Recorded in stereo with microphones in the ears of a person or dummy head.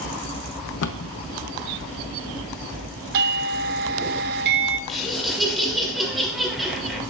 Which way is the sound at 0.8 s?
70° left (ahead or behind).